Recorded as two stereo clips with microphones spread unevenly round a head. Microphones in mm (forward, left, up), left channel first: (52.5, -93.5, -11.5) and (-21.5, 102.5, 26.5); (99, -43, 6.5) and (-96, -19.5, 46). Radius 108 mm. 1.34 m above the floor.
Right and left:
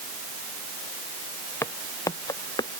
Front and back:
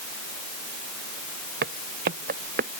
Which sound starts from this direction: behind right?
Footsteps, at 1.6 s.